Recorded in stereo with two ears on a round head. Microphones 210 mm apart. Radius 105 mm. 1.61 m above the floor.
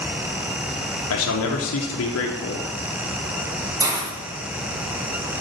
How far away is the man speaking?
About 0.9 m.